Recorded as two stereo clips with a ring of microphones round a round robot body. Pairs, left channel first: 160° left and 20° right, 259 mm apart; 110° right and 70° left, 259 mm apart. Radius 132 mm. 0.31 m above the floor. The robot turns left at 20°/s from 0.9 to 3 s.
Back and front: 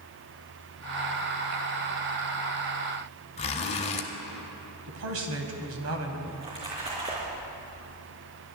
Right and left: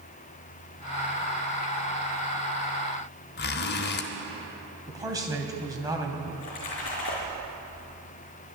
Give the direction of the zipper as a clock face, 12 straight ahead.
5 o'clock.